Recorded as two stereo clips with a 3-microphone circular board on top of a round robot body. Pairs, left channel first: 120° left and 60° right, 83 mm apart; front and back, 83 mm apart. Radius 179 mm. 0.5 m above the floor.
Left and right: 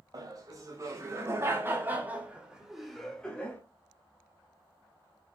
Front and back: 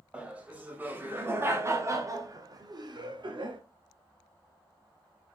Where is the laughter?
105° right, 3 m; by 3.6 s 170° right, 1.9 m.